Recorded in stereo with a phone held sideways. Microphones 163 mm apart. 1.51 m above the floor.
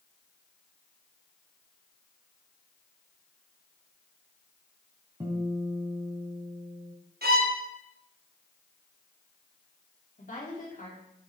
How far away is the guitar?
About 3 m.